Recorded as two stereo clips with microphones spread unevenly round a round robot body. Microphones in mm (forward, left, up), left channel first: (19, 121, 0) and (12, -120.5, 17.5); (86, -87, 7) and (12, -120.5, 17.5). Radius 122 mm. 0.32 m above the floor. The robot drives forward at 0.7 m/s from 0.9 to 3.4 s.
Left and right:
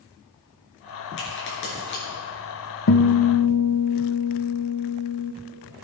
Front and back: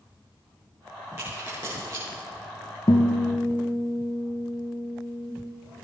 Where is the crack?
130° left, 5 m; by 2.0 s 135° left, 5 m.